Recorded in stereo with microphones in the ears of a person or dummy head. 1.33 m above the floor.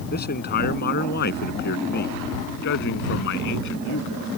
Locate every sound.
0.1 s a man speaking: 50° left (ahead or behind); by 4.3 s 65° left (ahead or behind)